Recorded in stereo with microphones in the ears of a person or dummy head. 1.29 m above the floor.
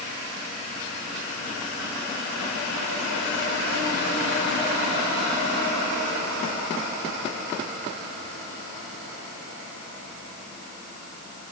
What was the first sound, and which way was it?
Only background noise.